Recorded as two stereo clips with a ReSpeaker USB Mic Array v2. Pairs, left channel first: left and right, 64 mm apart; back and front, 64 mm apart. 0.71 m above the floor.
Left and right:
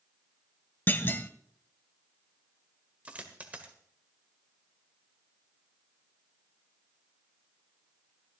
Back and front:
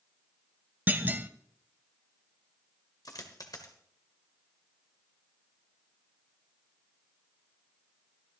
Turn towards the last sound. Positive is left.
turn(degrees=-160)